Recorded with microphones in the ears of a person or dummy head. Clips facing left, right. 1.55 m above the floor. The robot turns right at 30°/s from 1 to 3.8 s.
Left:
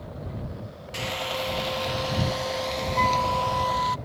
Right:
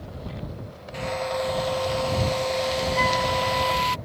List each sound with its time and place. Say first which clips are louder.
0.9 s frying: right 5 dB; 130° left; by 4.0 s 145° right
3.0 s a flute: right 2 dB; 10° right (ahead or behind); by 4.0 s 35° right (ahead or behind)